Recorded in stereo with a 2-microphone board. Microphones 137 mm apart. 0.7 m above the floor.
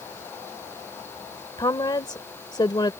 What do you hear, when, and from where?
1.6 s a woman speaking: 30° left (ahead or behind)